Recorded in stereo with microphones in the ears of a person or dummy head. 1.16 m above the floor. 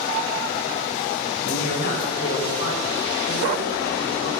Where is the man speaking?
70° left (ahead or behind), 6 m.